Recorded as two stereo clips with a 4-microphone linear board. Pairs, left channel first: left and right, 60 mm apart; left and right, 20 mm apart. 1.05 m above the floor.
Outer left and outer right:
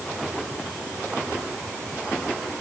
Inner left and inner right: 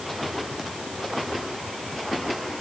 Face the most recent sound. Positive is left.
No sound to turn to.